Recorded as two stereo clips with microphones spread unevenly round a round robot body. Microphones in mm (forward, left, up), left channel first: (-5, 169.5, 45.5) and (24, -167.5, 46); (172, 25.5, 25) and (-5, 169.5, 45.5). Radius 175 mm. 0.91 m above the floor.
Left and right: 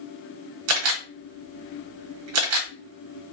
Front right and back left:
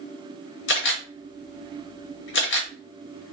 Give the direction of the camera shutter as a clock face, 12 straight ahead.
2 o'clock.